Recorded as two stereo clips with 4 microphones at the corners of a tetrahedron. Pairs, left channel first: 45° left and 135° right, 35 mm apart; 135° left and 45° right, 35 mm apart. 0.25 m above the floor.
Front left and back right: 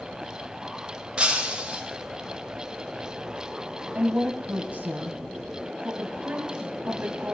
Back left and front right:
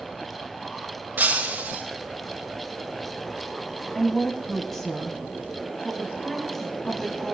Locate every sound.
1.2 s breaking glass: 75° right, 3.5 m
4.0 s a woman speaking: 150° right, 1.9 m